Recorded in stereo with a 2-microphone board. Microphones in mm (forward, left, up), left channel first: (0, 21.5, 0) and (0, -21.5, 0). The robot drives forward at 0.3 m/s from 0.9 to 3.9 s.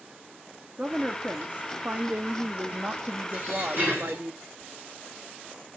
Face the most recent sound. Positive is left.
turn(degrees=-55)  # may be behind; listen again after turning